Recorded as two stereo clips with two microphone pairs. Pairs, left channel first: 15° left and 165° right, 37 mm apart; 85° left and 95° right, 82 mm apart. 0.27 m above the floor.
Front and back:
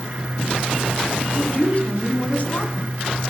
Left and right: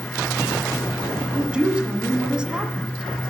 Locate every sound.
1.3 s a woman speaking: 20° right, 1.8 m